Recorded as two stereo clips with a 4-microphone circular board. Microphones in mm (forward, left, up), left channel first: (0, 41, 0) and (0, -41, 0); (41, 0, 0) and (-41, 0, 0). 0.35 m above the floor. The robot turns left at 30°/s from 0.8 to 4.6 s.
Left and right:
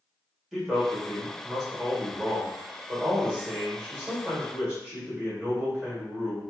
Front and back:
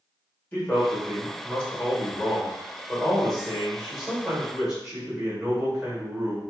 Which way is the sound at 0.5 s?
Straight ahead.